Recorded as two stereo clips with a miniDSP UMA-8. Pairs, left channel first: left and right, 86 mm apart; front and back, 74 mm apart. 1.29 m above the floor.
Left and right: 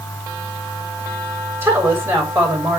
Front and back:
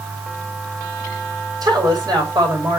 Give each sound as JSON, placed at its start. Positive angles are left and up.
{"t": 1.6, "sound": "a woman speaking", "azimuth_deg": -155, "distance_m": 6.0}